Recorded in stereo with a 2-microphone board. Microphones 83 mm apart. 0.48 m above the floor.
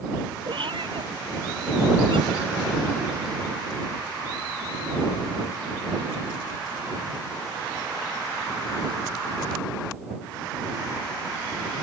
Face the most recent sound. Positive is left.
turn(degrees=-90)